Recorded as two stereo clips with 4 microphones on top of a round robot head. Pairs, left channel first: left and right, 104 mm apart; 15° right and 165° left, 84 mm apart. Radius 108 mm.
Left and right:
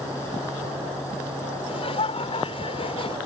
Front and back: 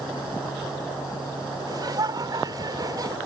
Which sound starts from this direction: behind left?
Laughter, at 1.7 s.